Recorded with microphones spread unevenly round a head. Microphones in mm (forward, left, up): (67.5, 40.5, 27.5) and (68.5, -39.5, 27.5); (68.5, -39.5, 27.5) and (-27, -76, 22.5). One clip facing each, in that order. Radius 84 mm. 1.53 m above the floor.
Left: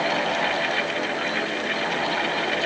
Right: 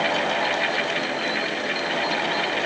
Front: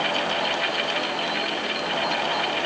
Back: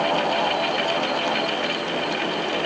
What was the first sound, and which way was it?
Only background noise.